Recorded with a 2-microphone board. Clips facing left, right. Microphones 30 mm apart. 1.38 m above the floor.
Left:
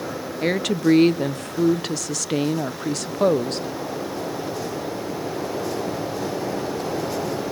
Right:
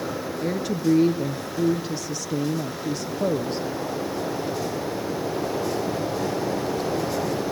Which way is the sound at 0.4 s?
70° left (ahead or behind).